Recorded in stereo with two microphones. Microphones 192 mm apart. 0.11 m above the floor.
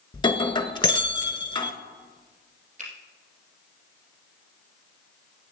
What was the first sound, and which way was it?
Breaking glass, 25° left (ahead or behind).